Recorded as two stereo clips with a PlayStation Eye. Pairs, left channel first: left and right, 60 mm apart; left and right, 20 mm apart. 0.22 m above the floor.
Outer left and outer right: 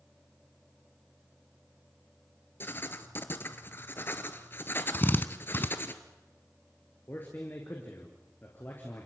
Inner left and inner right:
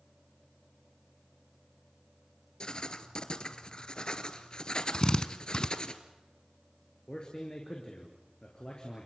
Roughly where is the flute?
I don't hear a flute.